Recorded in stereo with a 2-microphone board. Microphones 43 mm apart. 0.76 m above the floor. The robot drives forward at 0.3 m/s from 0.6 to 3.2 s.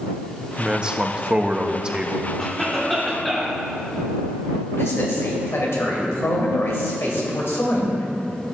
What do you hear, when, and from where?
0.6 s a man speaking: 20° right (ahead or behind), 0.7 m
2.4 s a cough: 5° left (ahead or behind), 2 m; by 3.6 s centre (ahead or behind), 2.5 m
4.7 s a man speaking: 75° left (ahead or behind), 2.5 m